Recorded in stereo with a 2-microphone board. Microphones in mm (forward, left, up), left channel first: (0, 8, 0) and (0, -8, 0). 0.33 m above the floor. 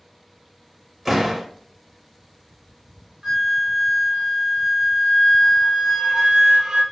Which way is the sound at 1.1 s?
15° right (ahead or behind).